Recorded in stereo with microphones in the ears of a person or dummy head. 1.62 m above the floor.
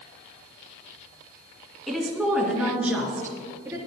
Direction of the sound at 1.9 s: Centre (ahead or behind).